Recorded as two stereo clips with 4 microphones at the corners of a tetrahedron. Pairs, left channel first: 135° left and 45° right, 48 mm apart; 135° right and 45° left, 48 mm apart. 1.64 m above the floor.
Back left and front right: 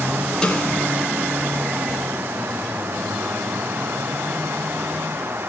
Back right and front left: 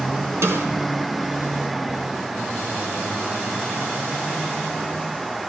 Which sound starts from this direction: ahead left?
A snare drum, at 0.4 s.